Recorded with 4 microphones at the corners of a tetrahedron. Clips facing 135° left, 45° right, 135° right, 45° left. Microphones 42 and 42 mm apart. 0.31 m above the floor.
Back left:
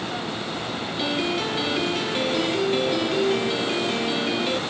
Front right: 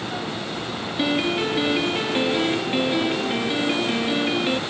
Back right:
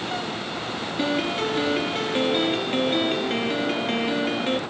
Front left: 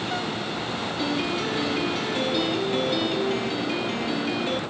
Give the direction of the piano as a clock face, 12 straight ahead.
3 o'clock.